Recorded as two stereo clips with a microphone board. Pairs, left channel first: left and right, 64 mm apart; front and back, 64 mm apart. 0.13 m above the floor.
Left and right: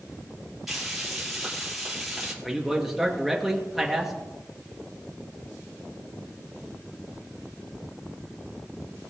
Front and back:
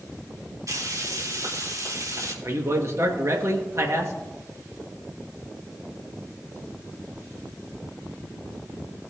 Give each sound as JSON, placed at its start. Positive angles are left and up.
{"t": 0.7, "sound": "frying", "azimuth_deg": -175, "distance_m": 3.5}
{"t": 2.4, "sound": "a man speaking", "azimuth_deg": -175, "distance_m": 2.5}